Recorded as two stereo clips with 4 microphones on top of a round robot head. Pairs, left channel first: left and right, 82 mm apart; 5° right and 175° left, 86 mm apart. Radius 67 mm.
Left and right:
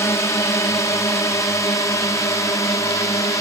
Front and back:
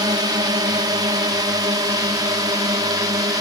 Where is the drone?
140° left; by 3.4 s 135° left.